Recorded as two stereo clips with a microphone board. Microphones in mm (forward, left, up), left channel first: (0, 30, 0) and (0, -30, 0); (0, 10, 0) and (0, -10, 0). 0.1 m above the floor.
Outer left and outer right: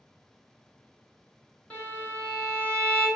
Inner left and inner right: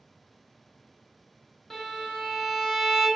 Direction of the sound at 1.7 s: 20° left (ahead or behind).